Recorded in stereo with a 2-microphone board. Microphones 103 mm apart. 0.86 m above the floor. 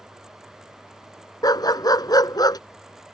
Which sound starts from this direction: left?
A dog barking, at 1.4 s.